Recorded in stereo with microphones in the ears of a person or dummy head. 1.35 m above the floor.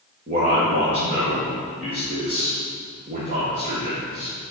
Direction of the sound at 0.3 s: 35° right (ahead or behind).